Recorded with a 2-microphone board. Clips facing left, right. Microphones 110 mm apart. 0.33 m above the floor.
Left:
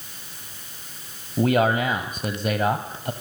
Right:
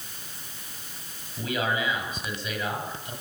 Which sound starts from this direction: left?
A man speaking, at 1.4 s.